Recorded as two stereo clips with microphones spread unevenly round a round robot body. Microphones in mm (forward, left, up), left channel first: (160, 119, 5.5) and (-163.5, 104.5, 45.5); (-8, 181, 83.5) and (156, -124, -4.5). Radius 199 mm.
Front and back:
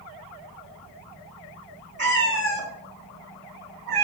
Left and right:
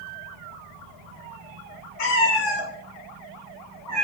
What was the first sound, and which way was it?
A cat meowing, 125° left.